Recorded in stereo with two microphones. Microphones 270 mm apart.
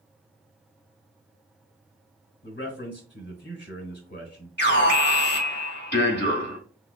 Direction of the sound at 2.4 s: 40° left (ahead or behind).